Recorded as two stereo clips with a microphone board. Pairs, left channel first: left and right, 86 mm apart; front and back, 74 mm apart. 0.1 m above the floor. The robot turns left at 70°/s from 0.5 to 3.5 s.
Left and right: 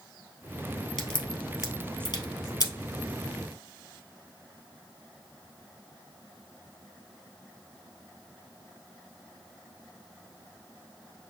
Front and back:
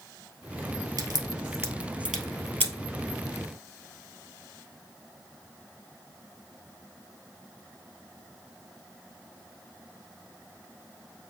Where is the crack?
175° left, 1.8 m; by 2.7 s 55° left, 1.8 m.